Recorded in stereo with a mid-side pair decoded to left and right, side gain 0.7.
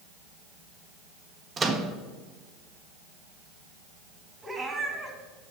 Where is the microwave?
25° right, 1.1 m.